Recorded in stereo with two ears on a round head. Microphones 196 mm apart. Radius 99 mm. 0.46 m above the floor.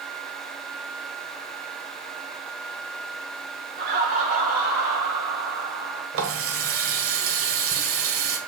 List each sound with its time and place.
3.8 s laughter: 45° right (ahead or behind), 1.3 m; by 6.0 s 10° right (ahead or behind), 3 m
6.1 s a running tap: 65° right (ahead or behind), 1.5 m